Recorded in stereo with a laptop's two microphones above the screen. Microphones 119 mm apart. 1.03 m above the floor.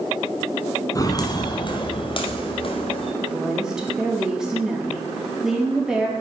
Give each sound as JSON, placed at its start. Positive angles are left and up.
{"t": 0.9, "sound": "footsteps", "side_deg": 30, "distance_m": 1.2}
{"t": 3.2, "sound": "a woman speaking", "side_deg": -5, "distance_m": 2.5}